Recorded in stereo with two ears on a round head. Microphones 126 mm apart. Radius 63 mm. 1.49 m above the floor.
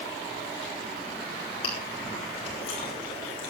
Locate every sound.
1.6 s chewing: 40° left (ahead or behind), 7 m